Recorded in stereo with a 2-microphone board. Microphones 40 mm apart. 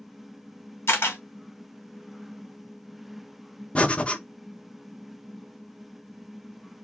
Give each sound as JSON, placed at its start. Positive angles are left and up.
{"t": 0.9, "sound": "a camera shutter", "side_deg": 75, "distance_m": 1.4}
{"t": 3.8, "sound": "breathing", "side_deg": 25, "distance_m": 0.6}